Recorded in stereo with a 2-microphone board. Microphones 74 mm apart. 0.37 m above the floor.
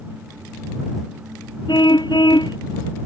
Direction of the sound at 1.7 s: 75° left (ahead or behind).